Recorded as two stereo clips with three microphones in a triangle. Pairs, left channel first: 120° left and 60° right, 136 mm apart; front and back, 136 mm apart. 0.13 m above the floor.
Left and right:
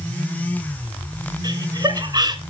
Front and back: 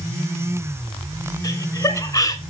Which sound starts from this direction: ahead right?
Laughter, at 1.4 s.